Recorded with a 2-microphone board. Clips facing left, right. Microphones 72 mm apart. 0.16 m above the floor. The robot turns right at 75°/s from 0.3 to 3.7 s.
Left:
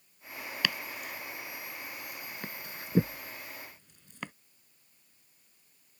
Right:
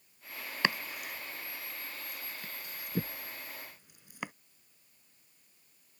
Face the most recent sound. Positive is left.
turn(degrees=-10)  # may be behind; listen again after turning